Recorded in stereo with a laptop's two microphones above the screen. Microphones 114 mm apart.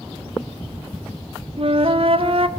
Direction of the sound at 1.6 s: 55° right (ahead or behind).